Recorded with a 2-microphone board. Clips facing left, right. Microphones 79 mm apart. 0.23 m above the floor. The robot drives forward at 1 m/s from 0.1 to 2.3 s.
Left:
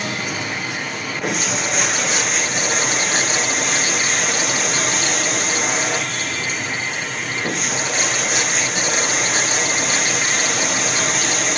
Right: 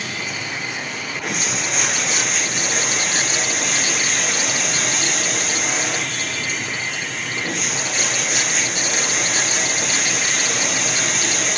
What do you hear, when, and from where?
0.0 s running water: 70° left (ahead or behind), 3.5 m; by 11.6 s 45° left (ahead or behind), 4.5 m